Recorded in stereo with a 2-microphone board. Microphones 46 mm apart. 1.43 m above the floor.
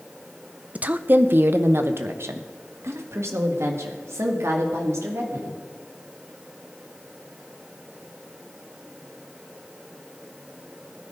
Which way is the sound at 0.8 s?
30° right (ahead or behind).